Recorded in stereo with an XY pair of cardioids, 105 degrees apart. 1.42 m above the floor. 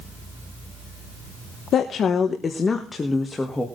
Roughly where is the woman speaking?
Ahead left.